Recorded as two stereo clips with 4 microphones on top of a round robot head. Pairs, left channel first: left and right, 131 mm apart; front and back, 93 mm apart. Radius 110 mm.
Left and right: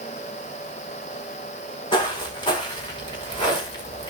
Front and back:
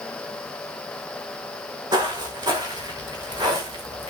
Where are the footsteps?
140° left, 5 m; by 4.1 s 145° left, 6.5 m.